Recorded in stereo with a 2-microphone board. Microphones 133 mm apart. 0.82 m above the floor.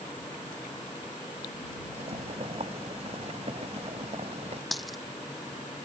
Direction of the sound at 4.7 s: Centre (ahead or behind).